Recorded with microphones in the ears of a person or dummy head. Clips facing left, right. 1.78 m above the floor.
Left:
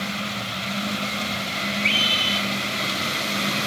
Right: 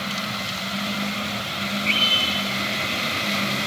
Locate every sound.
1.8 s a scream: 80° left, 4.5 m